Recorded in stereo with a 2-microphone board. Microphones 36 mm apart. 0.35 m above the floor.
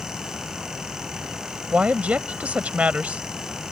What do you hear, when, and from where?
1.7 s a woman speaking: 40° right (ahead or behind)